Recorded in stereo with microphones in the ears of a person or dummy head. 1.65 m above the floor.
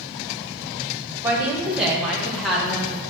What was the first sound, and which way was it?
A woman speaking, 10° right (ahead or behind).